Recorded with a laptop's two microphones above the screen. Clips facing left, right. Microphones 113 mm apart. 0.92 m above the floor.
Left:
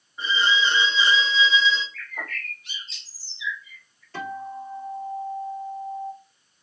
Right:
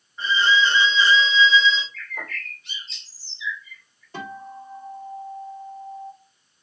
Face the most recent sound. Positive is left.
turn(degrees=-15)  # may be behind; listen again after turning